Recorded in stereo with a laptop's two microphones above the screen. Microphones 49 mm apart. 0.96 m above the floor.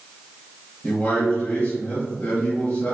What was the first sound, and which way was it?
A man speaking, 45° left (ahead or behind).